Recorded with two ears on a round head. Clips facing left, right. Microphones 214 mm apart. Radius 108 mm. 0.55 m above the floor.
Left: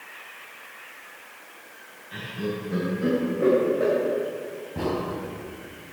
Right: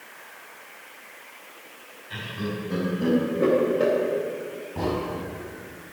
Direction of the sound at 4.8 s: 10° left (ahead or behind).